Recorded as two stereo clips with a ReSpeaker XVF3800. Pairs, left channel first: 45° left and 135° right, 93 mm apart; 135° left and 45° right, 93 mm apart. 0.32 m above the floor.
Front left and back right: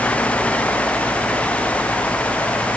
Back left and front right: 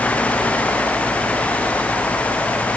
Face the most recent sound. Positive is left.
No sound to turn to.